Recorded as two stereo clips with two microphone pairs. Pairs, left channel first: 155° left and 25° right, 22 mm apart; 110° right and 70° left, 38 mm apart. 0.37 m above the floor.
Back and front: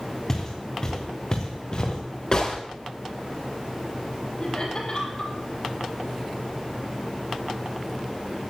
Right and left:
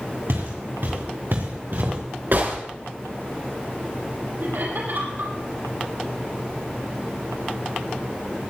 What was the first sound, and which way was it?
Footsteps, 85° left.